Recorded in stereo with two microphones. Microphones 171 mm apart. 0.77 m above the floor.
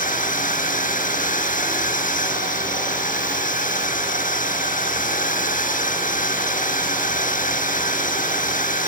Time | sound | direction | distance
0.0 | a drone | 50° left (ahead or behind) | ?